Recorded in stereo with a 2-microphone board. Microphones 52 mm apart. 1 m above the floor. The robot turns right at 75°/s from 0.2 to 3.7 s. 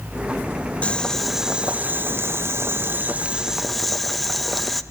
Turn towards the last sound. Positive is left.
turn(degrees=0)